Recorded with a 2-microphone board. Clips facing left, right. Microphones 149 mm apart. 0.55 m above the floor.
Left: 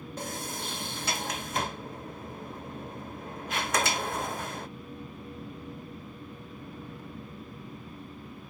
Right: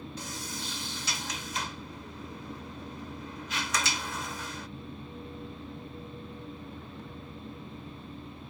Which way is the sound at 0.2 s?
55° left (ahead or behind).